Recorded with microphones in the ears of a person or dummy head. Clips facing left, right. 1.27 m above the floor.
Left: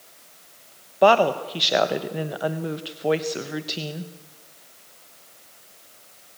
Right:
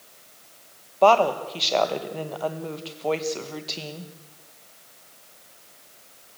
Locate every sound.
1.0 s a woman speaking: 20° left (ahead or behind), 1.5 m